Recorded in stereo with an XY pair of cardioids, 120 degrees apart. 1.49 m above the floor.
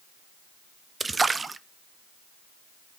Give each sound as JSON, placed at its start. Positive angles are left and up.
{"t": 1.0, "sound": "a splash", "azimuth_deg": -20, "distance_m": 0.6}